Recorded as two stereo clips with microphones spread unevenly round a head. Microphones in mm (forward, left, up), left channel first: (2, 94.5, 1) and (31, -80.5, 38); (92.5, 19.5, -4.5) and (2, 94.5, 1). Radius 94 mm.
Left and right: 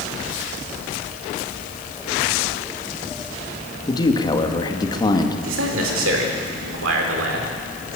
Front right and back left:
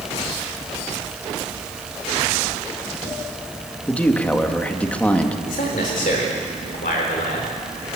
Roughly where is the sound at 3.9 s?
Ahead left.